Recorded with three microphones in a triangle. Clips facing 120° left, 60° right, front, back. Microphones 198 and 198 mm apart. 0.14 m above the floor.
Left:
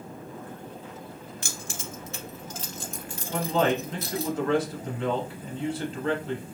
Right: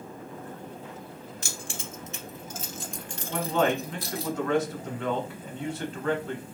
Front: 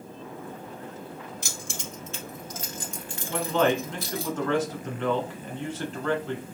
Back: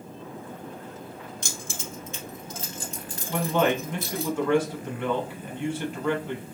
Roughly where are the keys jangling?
Right.